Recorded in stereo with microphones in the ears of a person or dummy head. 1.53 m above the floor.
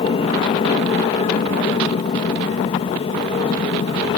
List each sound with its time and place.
0.0 s an aircraft: 30° left (ahead or behind)